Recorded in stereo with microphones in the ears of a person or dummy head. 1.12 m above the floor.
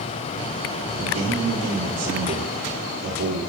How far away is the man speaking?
About 3 m.